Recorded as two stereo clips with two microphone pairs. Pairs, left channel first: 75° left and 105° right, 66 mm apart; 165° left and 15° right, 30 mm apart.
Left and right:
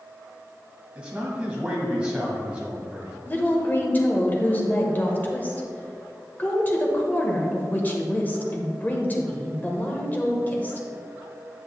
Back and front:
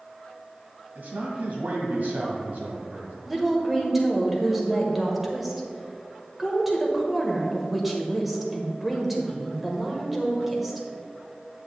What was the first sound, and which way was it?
A man speaking, 35° right.